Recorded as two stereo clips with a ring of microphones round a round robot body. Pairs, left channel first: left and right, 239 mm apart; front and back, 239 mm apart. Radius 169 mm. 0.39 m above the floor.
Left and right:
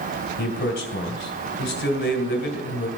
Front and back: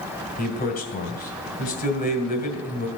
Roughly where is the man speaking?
Ahead left.